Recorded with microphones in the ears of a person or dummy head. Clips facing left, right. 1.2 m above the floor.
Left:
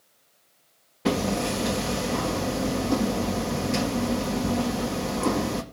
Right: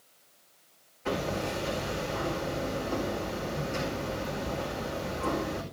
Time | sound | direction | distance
1.1 | hammering | 75° left (ahead or behind) | 1.9 m